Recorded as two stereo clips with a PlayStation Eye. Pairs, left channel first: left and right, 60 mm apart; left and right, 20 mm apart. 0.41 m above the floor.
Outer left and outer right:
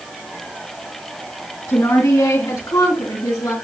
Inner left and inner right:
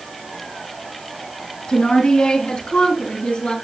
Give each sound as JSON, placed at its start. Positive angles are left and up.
{"t": 1.7, "sound": "a woman speaking", "side_deg": 55, "distance_m": 4.0}